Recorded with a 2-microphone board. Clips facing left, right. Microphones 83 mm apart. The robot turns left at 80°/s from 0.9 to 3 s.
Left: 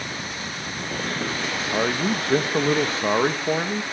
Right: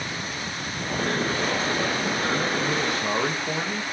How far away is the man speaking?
About 1.5 m.